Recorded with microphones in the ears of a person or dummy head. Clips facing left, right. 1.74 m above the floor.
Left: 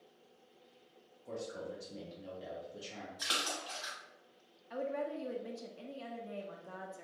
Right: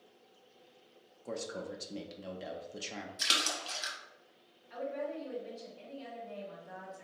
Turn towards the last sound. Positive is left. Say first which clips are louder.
# even
turn(degrees=55)  # may be behind; listen again after turning